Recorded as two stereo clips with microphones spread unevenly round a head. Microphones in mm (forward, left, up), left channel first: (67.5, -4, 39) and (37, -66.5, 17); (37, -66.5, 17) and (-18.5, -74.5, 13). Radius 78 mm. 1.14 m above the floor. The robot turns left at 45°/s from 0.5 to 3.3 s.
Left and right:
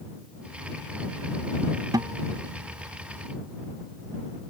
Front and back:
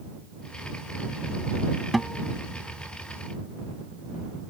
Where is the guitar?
80° right; by 2.4 s 100° right.